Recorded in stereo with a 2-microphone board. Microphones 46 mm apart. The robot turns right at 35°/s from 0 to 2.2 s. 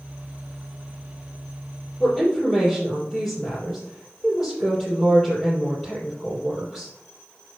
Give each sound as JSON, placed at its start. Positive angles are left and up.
{"t": 2.0, "sound": "a woman speaking", "side_deg": 20, "distance_m": 5.0}